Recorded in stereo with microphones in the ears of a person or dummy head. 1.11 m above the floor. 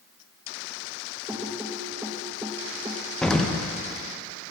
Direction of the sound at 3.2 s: 5° left (ahead or behind).